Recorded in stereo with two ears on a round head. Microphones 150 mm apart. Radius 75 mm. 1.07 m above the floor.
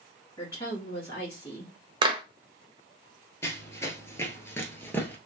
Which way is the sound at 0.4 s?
25° left (ahead or behind).